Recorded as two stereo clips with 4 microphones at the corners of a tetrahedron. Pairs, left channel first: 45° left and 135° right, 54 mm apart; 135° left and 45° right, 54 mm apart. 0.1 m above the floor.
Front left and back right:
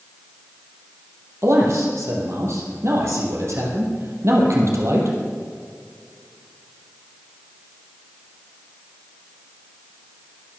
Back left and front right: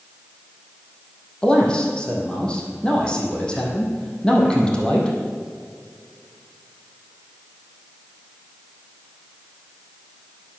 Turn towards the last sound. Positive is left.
turn(degrees=-155)